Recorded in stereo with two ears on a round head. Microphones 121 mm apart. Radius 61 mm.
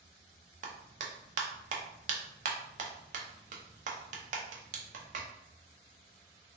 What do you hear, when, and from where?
0.6 s a clap: 60° right (ahead or behind), 0.5 m